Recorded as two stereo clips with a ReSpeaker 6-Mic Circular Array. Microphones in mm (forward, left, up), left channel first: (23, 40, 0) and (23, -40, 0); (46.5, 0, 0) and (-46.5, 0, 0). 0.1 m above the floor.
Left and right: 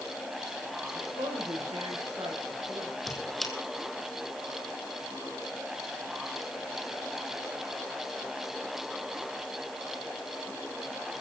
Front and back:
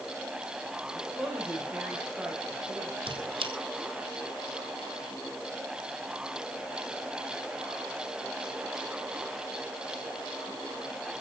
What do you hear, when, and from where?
0.9 s a woman speaking: 100° right, 9 m; by 3.0 s 105° right, 8 m
3.1 s a squeak: 175° left, 2.5 m